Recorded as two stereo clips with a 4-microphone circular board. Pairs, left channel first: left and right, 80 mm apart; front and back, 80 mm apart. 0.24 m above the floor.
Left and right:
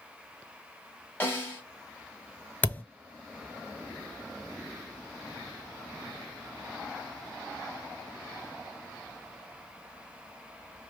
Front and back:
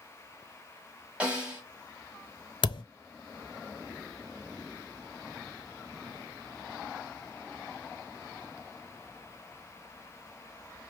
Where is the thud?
20° left, 0.6 m.